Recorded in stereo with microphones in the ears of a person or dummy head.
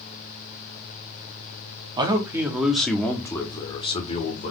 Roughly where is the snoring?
I don't hear snoring.